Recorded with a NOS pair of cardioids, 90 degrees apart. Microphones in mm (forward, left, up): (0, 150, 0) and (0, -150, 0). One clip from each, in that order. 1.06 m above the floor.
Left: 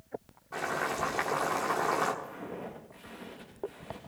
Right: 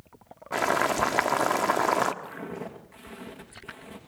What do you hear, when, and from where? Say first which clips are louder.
0.5 s boiling: right 8 dB; 65° right, 1.2 m
2.2 s footsteps: right 3 dB; 50° right, 5.5 m